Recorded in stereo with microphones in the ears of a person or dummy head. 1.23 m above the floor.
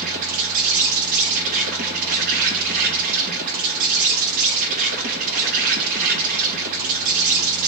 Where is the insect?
40° right (ahead or behind), 1.3 m.